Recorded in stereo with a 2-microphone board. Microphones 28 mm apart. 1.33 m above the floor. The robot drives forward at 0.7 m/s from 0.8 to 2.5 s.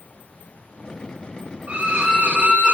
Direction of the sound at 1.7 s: 65° right (ahead or behind).